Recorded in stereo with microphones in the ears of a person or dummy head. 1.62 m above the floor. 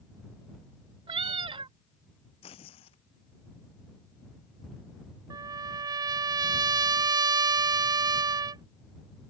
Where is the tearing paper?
40° left (ahead or behind).